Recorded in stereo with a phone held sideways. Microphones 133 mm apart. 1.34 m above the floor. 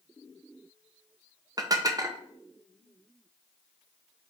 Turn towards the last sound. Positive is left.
turn(degrees=-30)  # may be behind; listen again after turning